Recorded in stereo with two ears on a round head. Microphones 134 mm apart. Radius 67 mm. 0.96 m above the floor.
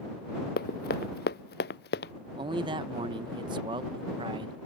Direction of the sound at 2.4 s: 30° right (ahead or behind).